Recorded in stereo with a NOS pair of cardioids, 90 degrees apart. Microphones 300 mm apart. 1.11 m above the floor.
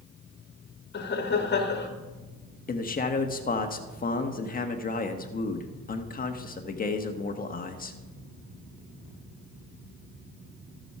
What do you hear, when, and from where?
0.9 s laughter: 35° left, 2 m
2.7 s a man speaking: 30° left, 1.5 m